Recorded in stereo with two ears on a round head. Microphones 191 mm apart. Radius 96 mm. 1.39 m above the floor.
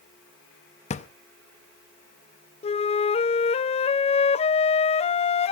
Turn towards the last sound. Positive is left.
turn(degrees=30)  # may be behind; listen again after turning